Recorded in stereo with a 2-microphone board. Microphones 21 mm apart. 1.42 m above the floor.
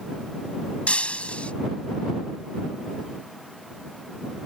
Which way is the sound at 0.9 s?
75° left (ahead or behind).